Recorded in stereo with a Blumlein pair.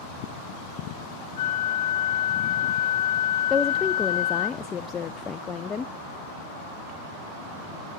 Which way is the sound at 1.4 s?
55° left.